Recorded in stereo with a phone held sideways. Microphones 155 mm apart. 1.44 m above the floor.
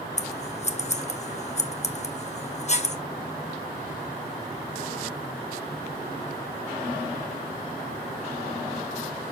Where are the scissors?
45° left (ahead or behind), 0.8 m.